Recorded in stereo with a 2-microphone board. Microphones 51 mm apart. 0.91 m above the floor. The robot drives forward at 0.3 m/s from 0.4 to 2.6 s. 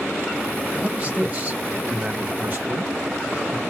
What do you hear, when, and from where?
0.8 s a man speaking: 35° right (ahead or behind), 2 m; by 3.6 s 45° right (ahead or behind), 1.7 m